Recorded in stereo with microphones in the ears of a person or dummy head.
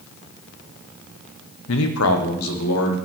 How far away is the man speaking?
About 0.9 m.